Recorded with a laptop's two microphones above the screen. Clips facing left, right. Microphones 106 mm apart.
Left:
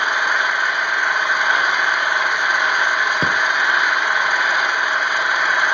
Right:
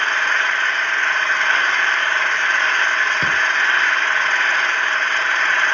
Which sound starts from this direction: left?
A thud, at 3.2 s.